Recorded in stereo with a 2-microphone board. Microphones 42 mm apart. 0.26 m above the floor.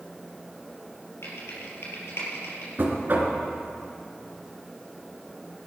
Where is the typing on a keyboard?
75° left (ahead or behind), 4.5 m.